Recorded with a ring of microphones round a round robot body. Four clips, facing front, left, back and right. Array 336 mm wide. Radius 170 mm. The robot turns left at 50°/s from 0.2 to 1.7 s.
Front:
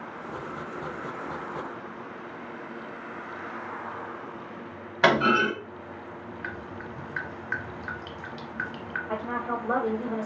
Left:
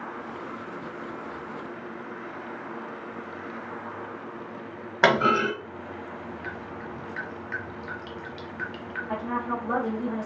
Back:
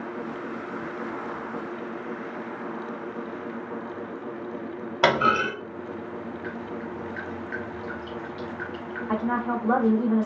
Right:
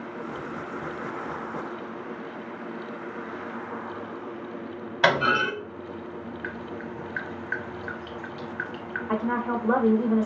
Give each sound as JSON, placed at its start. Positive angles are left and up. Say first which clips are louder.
{"t": 5.0, "sound": "a clunk", "louder": "left 1 dB, even", "azimuth_deg": 135, "distance_m": 1.7}
{"t": 6.4, "sound": "dripping", "louder": "right 2 dB, back 4 dB", "azimuth_deg": 15, "distance_m": 1.2}
{"t": 9.1, "sound": "a woman speaking", "louder": "right 3 dB, back 5 dB", "azimuth_deg": -140, "distance_m": 1.0}